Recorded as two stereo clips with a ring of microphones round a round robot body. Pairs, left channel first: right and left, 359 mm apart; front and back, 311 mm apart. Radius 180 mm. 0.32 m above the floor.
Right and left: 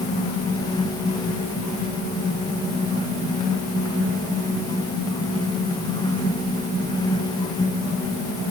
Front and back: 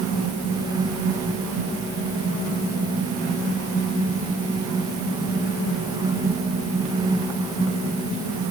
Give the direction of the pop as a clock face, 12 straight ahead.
No pop in this recording.